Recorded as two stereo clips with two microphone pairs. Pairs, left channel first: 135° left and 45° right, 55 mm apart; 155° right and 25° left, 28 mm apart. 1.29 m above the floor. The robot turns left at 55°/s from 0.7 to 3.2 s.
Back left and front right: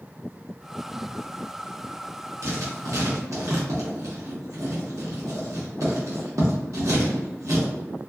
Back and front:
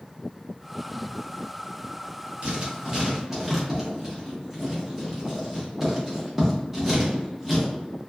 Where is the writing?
15° right, 1.0 m; by 7.7 s 60° right, 1.0 m.